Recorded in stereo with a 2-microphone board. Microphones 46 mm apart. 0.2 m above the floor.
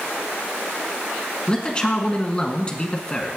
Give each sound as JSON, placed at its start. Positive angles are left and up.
{"t": 1.5, "sound": "a man speaking", "side_deg": 25, "distance_m": 1.9}